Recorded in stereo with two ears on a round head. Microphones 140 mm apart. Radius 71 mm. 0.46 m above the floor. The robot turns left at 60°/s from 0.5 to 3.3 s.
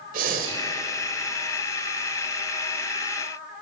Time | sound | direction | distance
0.1 | breathing | 55° right (ahead or behind) | 1.8 m